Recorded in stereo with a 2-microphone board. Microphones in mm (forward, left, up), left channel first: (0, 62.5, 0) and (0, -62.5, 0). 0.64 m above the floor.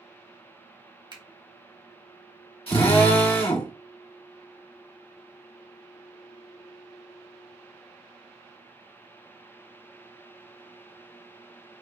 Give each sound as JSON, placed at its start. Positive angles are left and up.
{"t": 1.1, "sound": "a finger snap", "side_deg": -40, "distance_m": 1.0}
{"t": 2.7, "sound": "a drill", "side_deg": 50, "distance_m": 1.6}